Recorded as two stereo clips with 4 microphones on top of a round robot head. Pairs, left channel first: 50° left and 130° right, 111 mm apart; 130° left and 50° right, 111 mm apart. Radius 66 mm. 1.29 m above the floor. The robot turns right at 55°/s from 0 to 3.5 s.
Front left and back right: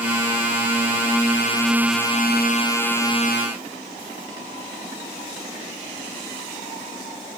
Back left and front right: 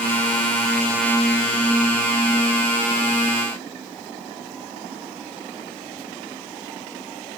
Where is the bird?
I don't hear a bird.